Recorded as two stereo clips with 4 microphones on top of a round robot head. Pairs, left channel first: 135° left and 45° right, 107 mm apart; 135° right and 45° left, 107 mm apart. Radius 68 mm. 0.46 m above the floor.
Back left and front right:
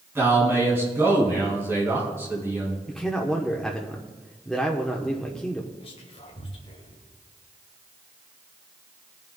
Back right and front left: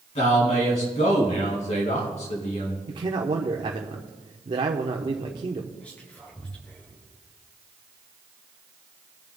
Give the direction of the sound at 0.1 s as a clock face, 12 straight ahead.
4 o'clock.